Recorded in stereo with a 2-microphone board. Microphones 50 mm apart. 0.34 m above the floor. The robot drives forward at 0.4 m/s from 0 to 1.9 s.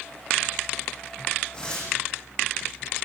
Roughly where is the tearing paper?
Centre.